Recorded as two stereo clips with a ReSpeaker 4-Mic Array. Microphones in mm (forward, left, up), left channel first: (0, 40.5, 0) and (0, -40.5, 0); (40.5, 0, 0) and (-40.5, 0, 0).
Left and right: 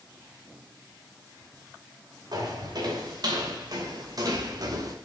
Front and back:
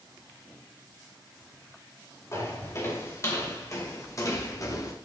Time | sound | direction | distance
2.3 | footsteps | 55° right | 5.5 m